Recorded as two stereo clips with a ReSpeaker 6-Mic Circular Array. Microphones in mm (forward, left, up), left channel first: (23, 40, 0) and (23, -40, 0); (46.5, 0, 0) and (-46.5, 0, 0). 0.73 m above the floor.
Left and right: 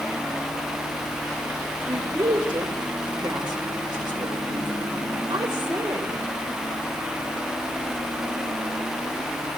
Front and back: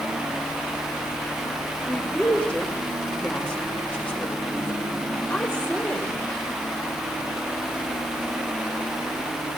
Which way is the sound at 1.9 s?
75° right.